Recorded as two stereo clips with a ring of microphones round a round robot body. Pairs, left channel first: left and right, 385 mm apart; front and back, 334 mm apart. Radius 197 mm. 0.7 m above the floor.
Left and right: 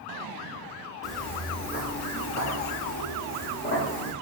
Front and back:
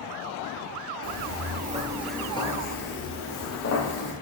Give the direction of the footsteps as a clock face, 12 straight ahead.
6 o'clock.